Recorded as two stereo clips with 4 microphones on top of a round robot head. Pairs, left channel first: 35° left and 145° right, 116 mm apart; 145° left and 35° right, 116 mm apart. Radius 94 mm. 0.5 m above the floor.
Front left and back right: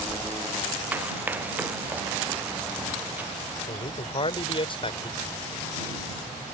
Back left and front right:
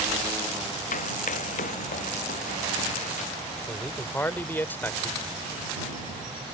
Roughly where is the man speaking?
Left.